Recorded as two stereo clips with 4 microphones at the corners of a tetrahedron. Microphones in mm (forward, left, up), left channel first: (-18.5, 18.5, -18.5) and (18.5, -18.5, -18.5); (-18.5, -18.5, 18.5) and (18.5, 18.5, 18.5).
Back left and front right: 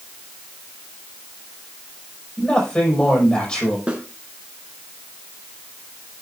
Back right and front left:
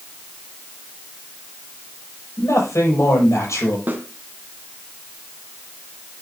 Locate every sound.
2.4 s a man speaking: 155° right, 6 m
3.9 s a snare drum: 20° left, 2 m